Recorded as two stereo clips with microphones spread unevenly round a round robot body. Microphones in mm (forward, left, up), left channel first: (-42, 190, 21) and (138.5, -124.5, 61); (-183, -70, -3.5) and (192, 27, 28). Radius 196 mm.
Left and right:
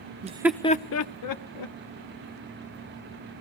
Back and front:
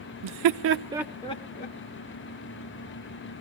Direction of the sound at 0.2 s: 15° left.